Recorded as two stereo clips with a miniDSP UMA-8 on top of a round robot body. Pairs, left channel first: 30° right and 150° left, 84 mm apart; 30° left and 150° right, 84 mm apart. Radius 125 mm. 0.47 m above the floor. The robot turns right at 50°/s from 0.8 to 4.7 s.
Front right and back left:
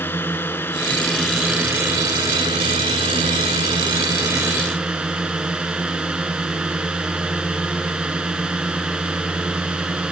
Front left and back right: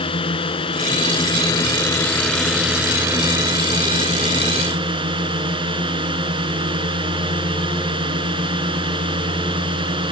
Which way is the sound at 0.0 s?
35° left.